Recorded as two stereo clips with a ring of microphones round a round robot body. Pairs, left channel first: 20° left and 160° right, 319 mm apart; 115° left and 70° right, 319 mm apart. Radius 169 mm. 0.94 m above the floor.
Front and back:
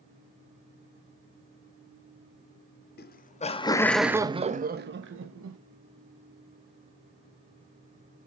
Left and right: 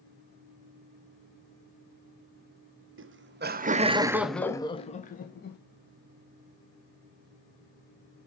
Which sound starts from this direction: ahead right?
Laughter, at 3.0 s.